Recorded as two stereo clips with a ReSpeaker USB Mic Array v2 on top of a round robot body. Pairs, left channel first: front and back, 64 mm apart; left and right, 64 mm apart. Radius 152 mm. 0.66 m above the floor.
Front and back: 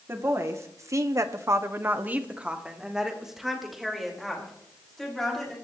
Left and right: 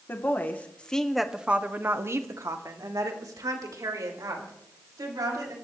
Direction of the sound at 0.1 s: 140° left.